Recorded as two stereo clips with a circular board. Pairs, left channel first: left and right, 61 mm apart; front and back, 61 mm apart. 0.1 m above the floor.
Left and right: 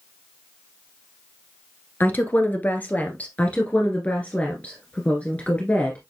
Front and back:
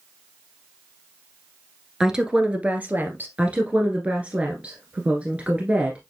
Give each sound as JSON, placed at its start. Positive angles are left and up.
{"t": 2.0, "sound": "a woman speaking", "azimuth_deg": 105, "distance_m": 1.2}
{"t": 3.4, "sound": "a woman speaking", "azimuth_deg": 135, "distance_m": 1.5}